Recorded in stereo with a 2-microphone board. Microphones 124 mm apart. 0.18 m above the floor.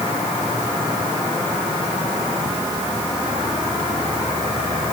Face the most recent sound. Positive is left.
No sound to turn to.